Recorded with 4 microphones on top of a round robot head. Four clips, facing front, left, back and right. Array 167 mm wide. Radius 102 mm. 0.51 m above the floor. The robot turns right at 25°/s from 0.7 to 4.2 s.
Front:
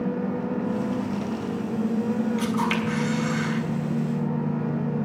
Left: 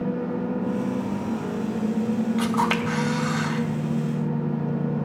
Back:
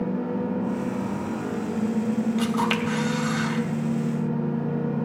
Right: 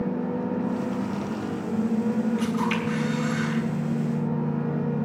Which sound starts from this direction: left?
A camera shutter, at 2.4 s.